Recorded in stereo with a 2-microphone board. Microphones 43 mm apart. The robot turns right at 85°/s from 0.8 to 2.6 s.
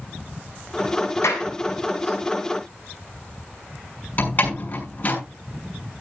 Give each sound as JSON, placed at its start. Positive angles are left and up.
{"t": 1.2, "sound": "a clap", "side_deg": 75, "distance_m": 7.0}
{"t": 4.2, "sound": "a door slam", "side_deg": 40, "distance_m": 6.5}